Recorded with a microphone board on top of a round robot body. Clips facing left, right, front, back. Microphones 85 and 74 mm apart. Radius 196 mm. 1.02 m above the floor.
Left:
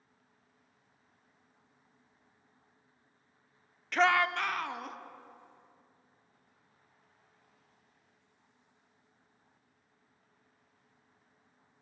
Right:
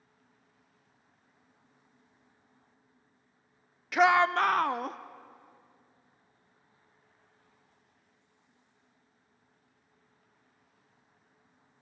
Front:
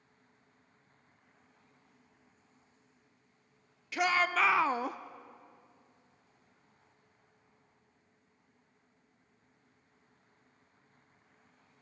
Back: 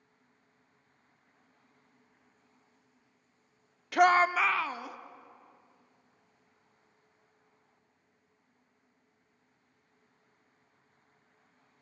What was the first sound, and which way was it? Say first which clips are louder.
A shout: right 4 dB, back 6 dB; 170° right.